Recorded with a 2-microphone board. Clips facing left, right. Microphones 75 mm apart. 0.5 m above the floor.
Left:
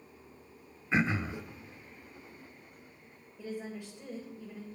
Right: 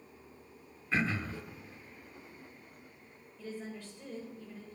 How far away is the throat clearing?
About 0.5 m.